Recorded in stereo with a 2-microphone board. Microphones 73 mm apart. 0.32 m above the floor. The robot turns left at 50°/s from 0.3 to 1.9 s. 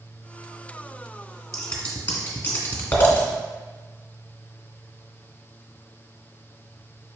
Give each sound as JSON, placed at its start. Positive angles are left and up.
{"t": 1.5, "sound": "scissors", "side_deg": 5, "distance_m": 1.2}